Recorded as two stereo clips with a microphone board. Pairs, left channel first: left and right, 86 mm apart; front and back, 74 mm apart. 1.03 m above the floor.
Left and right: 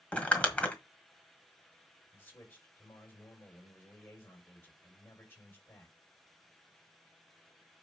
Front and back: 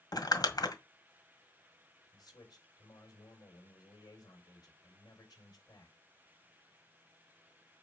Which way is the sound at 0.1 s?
15° left.